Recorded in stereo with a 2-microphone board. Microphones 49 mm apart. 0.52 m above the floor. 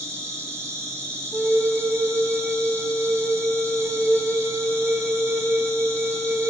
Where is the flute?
45° right (ahead or behind), 1.6 m.